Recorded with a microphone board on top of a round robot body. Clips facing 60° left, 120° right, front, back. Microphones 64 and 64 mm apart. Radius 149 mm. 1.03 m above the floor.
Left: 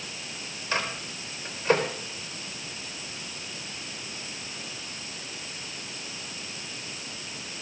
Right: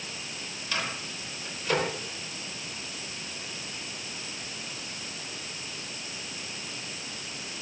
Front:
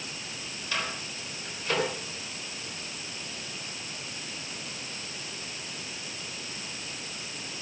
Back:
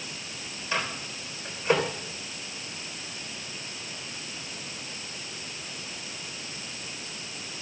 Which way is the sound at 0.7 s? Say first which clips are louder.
Left 3 dB, back 3 dB; 115° left.